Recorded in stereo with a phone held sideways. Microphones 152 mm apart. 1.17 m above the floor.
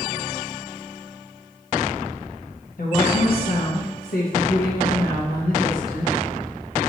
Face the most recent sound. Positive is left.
turn(degrees=75)  # may be behind; listen again after turning